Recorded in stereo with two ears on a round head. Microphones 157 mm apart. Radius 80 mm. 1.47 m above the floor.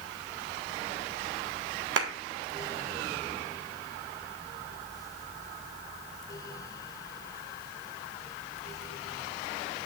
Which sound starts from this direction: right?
A clap, at 2.0 s.